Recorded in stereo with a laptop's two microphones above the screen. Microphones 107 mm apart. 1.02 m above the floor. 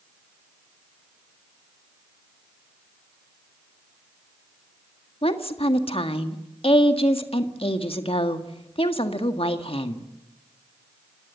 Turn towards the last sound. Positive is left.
turn(degrees=60)  # may be behind; listen again after turning